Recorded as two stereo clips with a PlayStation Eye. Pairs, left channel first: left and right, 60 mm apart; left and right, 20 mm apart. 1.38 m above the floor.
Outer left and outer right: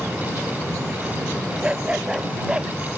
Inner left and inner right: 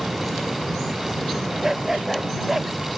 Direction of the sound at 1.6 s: 15° right (ahead or behind).